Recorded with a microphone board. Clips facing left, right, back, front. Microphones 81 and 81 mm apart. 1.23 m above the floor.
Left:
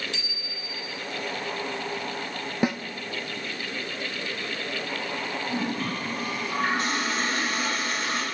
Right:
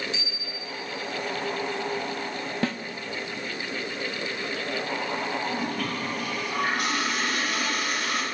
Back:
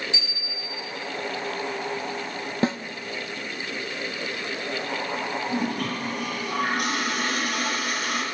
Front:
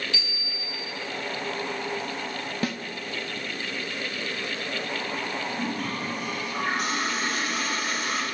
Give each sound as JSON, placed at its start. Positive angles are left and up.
{"t": 0.1, "sound": "a bicycle bell", "azimuth_deg": 110, "distance_m": 6.5}
{"t": 2.6, "sound": "a snare drum", "azimuth_deg": 150, "distance_m": 0.6}
{"t": 5.5, "sound": "a toilet flushing", "azimuth_deg": 150, "distance_m": 4.5}